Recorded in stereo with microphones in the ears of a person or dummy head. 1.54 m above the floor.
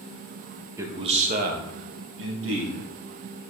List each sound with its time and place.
0.8 s a man speaking: 10° right (ahead or behind), 1.4 m; by 2.8 s 75° right (ahead or behind), 3 m